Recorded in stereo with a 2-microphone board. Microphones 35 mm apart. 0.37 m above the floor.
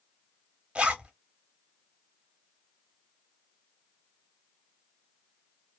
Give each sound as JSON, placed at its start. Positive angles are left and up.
{"t": 0.8, "sound": "a zipper", "side_deg": -30, "distance_m": 0.8}